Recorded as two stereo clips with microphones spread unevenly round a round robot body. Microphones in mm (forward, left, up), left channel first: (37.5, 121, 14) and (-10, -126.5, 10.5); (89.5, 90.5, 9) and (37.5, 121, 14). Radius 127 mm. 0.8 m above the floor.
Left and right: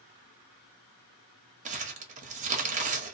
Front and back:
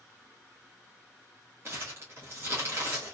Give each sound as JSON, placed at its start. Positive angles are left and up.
{"t": 1.6, "sound": "crumpling", "azimuth_deg": -155, "distance_m": 0.6}